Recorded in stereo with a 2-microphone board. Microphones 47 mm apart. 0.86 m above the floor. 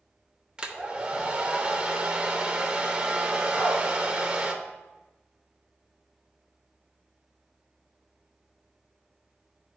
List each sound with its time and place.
0.6 s a hair dryer: 20° right (ahead or behind), 0.7 m
3.5 s a dog barking: 25° left (ahead or behind), 2.5 m